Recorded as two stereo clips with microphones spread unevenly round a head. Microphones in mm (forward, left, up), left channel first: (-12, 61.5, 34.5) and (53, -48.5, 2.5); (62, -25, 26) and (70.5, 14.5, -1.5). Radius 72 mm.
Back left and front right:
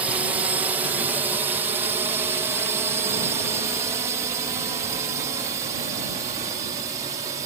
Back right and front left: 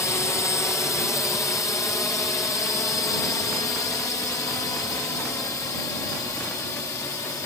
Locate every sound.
0.0 s a drone: 95° right; by 7.5 s 110° right